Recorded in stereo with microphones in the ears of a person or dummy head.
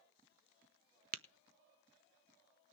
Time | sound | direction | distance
1.1 | tapping | 50° right (ahead or behind) | 1.1 m